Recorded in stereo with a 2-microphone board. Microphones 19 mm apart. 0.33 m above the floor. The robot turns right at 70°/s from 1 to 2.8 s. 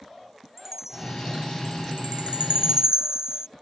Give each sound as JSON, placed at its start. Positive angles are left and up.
{"t": 0.6, "sound": "a chime", "azimuth_deg": -165}